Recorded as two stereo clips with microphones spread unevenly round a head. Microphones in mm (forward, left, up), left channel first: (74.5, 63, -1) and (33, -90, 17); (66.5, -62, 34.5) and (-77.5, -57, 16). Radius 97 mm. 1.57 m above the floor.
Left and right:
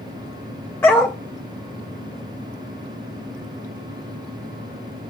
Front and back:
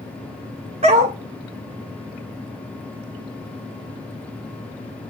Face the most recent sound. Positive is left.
turn(degrees=155)